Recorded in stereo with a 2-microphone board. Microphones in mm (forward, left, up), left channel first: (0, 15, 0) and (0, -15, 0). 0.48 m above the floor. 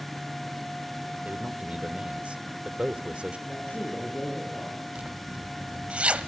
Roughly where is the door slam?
I don't hear a door slam.